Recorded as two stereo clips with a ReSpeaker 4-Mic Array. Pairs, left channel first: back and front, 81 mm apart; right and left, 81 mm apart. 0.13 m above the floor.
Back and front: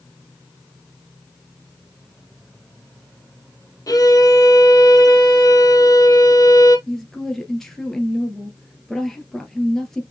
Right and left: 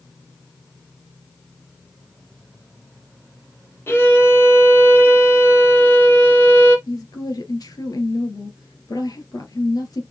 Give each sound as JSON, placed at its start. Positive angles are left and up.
{"t": 3.9, "sound": "a violin", "azimuth_deg": -145, "distance_m": 3.0}
{"t": 6.9, "sound": "a woman speaking", "azimuth_deg": -95, "distance_m": 2.5}